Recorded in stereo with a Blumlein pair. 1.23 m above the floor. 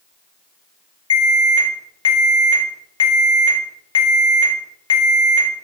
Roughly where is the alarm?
Ahead left.